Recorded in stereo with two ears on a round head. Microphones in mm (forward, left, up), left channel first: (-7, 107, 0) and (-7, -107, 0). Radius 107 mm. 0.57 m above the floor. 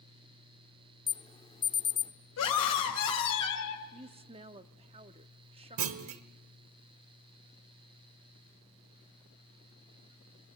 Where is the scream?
75° left (ahead or behind), 3 m.